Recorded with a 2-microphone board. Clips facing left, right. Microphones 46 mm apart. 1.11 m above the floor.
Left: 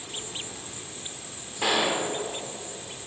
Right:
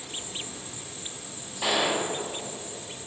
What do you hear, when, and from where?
0.0 s an insect: 30° left (ahead or behind), 1.3 m
1.6 s a gunshot: 40° left (ahead or behind), 1.7 m